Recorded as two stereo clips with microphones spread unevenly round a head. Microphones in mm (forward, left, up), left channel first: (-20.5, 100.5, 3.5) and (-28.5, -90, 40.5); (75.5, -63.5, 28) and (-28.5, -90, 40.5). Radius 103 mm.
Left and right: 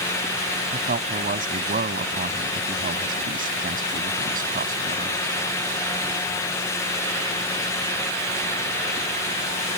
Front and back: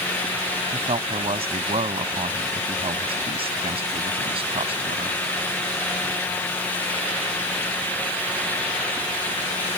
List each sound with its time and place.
0.7 s a man speaking: 135° right